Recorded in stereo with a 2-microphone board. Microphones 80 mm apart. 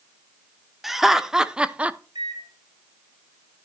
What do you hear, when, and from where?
0.8 s laughter: centre (ahead or behind), 0.9 m; by 2.0 s 20° right (ahead or behind), 0.5 m
2.1 s a microwave: 80° right, 3 m